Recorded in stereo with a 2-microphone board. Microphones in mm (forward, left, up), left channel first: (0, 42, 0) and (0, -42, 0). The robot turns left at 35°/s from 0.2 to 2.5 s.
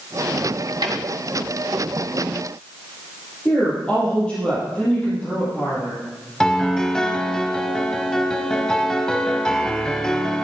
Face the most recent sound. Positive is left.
turn(degrees=10)  # may be behind; listen again after turning